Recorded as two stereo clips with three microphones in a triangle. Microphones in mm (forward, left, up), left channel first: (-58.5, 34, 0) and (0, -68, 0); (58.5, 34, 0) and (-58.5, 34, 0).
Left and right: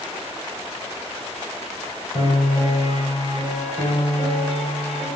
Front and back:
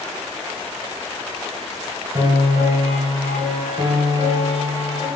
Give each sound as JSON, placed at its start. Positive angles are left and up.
{"t": 2.1, "sound": "a piano", "azimuth_deg": 135, "distance_m": 1.0}